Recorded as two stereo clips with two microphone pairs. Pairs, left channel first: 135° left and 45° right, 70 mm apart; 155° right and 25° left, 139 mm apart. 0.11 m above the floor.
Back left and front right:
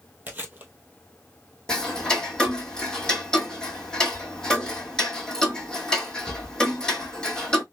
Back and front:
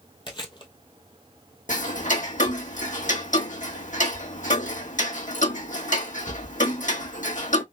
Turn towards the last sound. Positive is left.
turn(degrees=-150)